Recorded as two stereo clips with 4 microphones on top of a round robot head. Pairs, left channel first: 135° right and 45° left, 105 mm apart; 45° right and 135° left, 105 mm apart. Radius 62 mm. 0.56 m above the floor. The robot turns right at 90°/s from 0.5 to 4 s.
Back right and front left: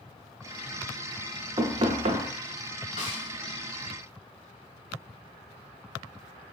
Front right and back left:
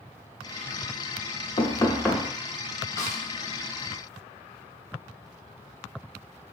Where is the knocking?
5° right, 0.7 m; by 2.3 s 55° left, 0.7 m.